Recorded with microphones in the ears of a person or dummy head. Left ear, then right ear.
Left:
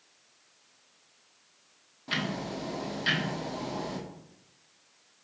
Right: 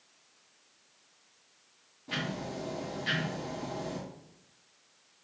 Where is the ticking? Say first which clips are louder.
Left 3 dB; 45° left (ahead or behind), 1.0 m.